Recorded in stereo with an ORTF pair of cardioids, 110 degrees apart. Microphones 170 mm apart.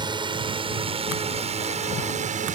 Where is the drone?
30° right; by 2.5 s 55° right.